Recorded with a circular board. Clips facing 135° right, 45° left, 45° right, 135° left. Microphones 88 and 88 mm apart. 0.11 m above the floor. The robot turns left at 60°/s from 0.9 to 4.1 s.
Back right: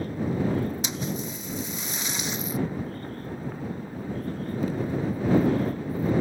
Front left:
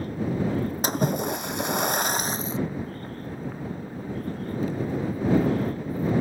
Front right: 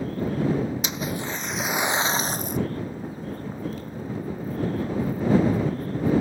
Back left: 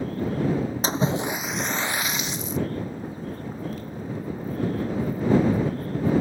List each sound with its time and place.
0.8 s a splash: 85° left; by 2.6 s 15° right